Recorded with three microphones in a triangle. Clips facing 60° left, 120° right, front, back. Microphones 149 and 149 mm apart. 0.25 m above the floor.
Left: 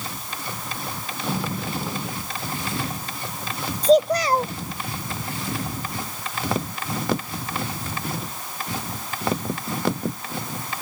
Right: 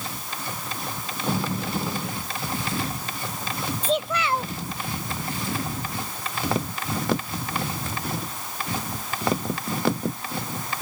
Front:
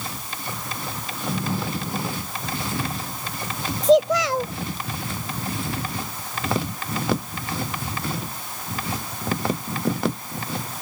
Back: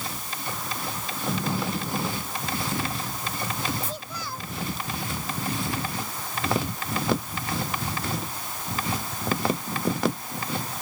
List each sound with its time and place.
3.8 s a child speaking: 5° left